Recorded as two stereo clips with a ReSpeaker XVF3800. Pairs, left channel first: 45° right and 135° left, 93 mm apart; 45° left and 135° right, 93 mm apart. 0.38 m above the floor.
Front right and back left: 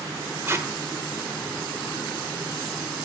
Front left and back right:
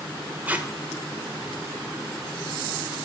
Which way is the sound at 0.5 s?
165° left.